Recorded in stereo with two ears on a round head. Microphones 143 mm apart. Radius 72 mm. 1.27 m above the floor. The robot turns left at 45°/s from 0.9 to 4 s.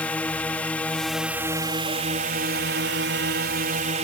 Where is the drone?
10° left; by 4.0 s 130° right.